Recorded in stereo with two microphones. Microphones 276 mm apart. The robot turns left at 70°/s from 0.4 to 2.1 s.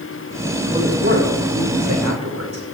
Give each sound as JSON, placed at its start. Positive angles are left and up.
{"t": 0.7, "sound": "a man speaking", "azimuth_deg": -15, "distance_m": 6.5}